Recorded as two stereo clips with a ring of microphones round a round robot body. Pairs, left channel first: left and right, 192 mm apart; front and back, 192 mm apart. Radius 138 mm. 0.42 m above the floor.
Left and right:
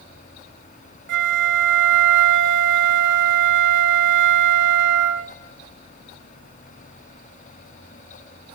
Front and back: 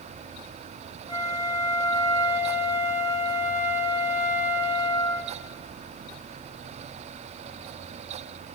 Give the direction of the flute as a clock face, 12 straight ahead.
3 o'clock.